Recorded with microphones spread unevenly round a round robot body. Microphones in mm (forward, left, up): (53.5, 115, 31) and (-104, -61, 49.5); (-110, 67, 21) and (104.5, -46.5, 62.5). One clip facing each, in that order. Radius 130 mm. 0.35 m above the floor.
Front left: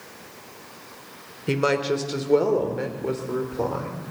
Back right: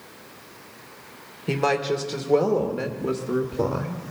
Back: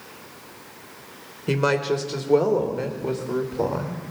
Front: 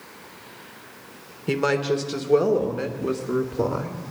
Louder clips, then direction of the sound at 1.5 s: Front left 1 dB, even; 85° left.